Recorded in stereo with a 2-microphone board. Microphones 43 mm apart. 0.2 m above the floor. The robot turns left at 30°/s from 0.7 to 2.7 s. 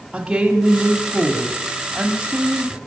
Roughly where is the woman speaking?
Centre.